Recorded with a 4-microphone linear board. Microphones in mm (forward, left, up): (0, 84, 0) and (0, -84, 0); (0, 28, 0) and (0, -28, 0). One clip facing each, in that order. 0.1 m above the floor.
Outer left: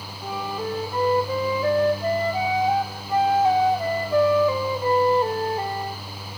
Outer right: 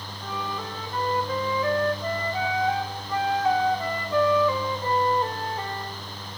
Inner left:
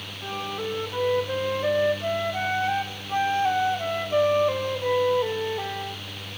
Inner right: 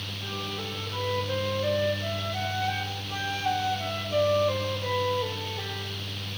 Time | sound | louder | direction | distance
0.2 | a flute | outer left 5 dB, inner left 6 dB | 25° left (ahead or behind) | 2 m